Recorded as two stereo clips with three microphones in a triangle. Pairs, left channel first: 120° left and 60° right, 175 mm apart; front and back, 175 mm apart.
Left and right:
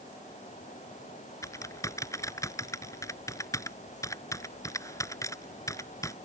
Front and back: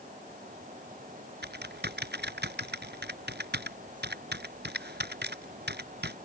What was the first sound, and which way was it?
Typing on a keyboard, 170° right.